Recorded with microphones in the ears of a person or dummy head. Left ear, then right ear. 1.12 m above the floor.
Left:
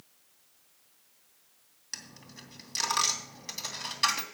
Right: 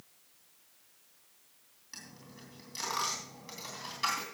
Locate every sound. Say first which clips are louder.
1.9 s a dropped coin: left 6 dB; 35° left (ahead or behind), 3 m